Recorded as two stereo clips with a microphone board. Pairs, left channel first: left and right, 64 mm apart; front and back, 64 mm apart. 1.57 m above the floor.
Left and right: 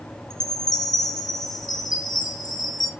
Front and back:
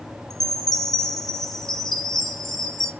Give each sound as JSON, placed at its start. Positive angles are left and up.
{"t": 0.3, "sound": "a chime", "azimuth_deg": 85, "distance_m": 0.7}